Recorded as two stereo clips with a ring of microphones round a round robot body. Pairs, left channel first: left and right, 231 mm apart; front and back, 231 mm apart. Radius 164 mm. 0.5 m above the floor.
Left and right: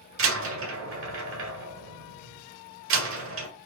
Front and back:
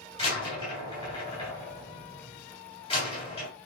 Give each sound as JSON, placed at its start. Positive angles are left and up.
{"t": 0.2, "sound": "a door slam", "azimuth_deg": -70, "distance_m": 1.4}